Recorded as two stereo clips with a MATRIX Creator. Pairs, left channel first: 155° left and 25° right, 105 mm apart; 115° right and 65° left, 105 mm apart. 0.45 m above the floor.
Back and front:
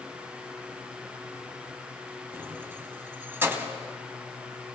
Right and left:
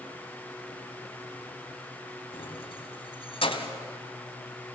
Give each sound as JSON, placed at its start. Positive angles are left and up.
{"t": 2.3, "sound": "keys jangling", "azimuth_deg": -90, "distance_m": 1.9}